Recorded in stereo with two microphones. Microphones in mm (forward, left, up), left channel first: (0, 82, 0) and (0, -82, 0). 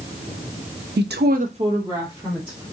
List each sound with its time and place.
1.0 s a woman speaking: 80° right, 0.6 m; by 2.6 s 10° right (ahead or behind), 1.8 m